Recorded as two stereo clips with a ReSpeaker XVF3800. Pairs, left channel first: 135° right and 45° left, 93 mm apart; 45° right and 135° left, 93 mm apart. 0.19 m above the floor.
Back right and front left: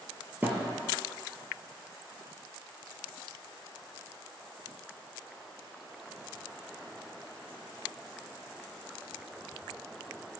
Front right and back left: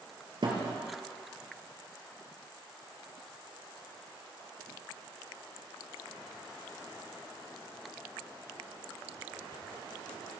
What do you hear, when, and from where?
0.4 s a thud: 110° left, 1.8 m